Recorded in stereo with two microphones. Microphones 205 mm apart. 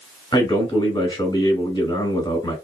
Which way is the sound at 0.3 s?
20° left (ahead or behind).